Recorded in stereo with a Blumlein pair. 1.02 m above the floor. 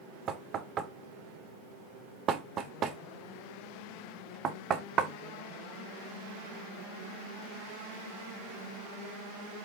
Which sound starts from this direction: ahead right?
Knocking, at 0.3 s.